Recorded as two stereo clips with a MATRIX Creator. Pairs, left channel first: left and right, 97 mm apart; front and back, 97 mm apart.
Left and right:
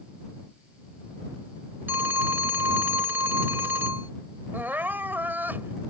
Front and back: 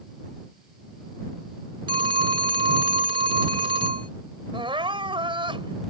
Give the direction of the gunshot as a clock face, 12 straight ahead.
No gunshot in this recording.